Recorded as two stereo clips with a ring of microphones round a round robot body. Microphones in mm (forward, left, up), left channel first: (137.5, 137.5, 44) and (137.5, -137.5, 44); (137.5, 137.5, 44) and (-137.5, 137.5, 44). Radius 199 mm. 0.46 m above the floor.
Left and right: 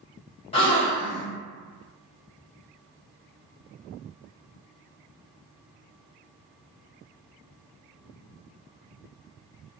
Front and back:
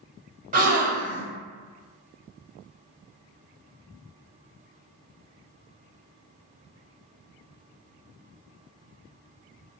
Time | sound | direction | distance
0.5 | a gasp | 145° left | 1.1 m